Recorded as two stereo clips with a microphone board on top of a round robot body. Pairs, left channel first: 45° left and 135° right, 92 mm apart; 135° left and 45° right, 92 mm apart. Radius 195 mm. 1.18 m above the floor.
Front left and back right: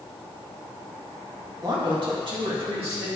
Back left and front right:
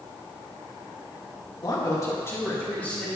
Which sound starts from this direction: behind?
A man speaking, at 1.6 s.